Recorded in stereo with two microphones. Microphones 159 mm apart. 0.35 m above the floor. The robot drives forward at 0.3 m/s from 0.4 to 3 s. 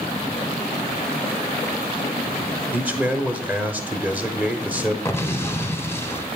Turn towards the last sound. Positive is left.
turn(degrees=15)  # may be behind; listen again after turning